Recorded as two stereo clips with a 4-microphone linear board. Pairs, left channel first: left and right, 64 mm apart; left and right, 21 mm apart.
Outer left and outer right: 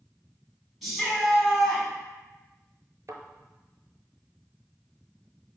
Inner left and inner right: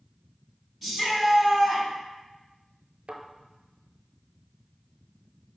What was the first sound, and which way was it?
A shout, centre (ahead or behind).